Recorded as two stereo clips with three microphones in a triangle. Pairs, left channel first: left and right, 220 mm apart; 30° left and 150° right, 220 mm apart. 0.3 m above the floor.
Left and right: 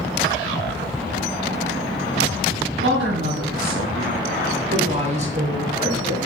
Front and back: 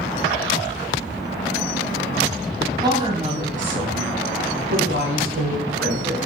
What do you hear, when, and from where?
2.8 s a woman speaking: 85° right, 2.5 m; by 6.2 s 160° right, 3.5 m